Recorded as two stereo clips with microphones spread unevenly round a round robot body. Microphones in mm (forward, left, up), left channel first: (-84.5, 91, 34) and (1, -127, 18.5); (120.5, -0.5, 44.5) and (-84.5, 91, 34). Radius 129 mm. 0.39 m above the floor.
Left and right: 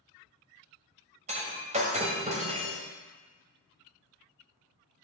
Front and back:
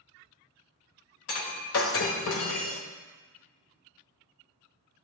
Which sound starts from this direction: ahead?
Breaking glass, at 1.3 s.